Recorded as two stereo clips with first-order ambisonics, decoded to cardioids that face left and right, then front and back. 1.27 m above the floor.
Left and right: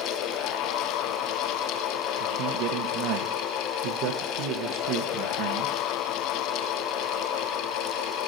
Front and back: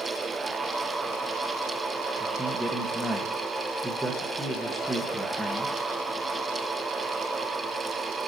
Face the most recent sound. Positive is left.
turn(degrees=-95)